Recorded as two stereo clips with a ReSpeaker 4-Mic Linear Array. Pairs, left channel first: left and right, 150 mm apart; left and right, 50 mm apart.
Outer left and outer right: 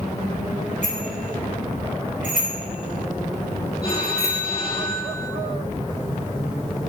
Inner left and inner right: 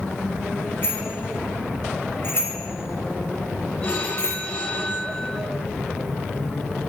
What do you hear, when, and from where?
0.8 s a bicycle bell: 55° left (ahead or behind), 5 m; by 4.4 s 80° left, 4.5 m
3.8 s a phone ringing: 45° left (ahead or behind), 9 m